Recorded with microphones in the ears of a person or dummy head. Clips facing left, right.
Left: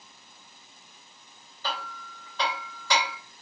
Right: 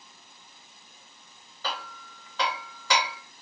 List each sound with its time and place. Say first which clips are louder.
1.6 s hammering: left 1 dB; 60° right (ahead or behind), 1.0 m